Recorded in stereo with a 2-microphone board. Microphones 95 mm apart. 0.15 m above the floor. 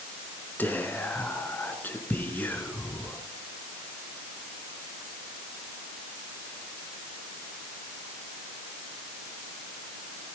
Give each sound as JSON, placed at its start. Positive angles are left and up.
{"t": 0.6, "sound": "whispering", "side_deg": 20, "distance_m": 1.9}